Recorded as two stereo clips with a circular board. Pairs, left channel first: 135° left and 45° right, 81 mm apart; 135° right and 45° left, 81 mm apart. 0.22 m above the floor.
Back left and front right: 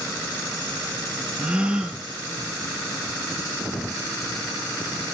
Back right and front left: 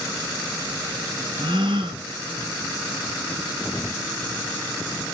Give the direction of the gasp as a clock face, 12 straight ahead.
11 o'clock.